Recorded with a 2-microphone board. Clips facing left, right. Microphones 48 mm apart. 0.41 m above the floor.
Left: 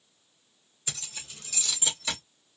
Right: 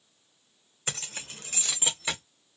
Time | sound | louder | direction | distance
0.9 | keys jangling | right 4 dB | 45° right (ahead or behind) | 0.6 m